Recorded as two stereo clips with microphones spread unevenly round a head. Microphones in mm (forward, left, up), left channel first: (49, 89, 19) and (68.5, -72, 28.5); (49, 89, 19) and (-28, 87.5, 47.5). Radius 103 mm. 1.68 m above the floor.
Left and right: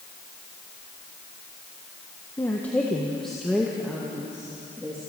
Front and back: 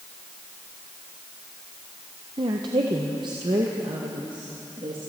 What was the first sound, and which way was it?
A woman speaking, 175° left.